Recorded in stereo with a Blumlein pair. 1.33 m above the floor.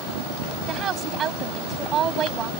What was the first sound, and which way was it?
A woman speaking, 30° right.